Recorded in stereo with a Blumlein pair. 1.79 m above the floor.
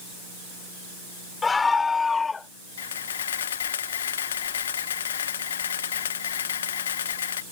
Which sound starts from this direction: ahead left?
A camera shutter, at 2.8 s.